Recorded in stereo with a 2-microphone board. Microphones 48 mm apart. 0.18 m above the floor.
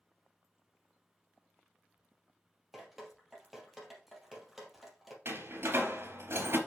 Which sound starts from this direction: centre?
Dripping, at 2.7 s.